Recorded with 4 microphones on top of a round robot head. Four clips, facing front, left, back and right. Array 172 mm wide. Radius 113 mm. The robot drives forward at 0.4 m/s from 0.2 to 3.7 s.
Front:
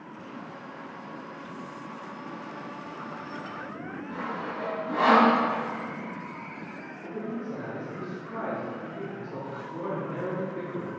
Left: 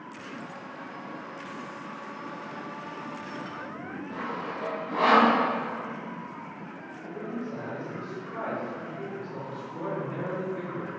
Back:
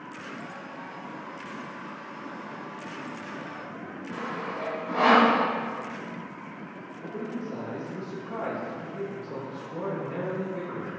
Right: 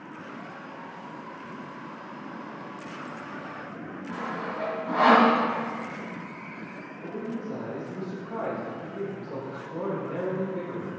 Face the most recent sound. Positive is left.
turn(degrees=-140)